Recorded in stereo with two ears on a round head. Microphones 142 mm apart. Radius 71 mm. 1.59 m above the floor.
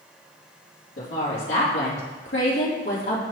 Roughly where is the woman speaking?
Left.